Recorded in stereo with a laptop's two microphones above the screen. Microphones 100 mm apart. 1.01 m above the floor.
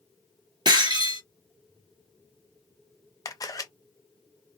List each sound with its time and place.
0.7 s breaking glass: 45° right (ahead or behind), 1.8 m
3.2 s a camera shutter: 35° left (ahead or behind), 0.5 m